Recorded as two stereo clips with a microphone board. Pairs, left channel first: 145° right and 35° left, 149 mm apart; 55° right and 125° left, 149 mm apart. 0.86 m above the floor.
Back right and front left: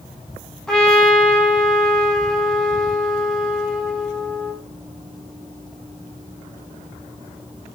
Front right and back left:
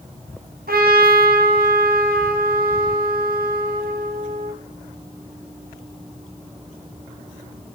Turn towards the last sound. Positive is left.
turn(degrees=130)